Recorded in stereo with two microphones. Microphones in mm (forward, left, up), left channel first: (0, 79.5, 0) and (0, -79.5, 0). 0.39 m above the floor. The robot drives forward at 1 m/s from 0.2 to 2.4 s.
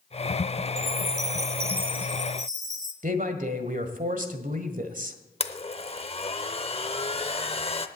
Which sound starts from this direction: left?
A blender, at 5.4 s.